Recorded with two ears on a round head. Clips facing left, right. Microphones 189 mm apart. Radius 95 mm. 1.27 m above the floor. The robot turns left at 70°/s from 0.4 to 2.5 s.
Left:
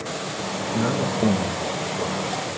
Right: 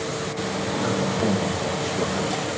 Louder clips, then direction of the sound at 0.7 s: Left 2 dB; 60° left.